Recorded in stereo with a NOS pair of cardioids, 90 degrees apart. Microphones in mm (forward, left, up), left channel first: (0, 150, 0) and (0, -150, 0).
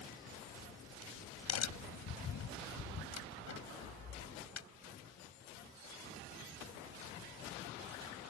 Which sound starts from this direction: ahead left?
A crack, at 0.3 s.